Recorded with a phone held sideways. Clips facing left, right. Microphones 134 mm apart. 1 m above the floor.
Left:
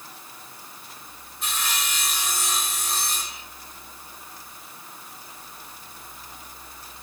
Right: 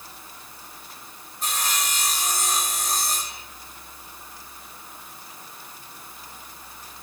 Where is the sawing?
45° right (ahead or behind), 1.7 m.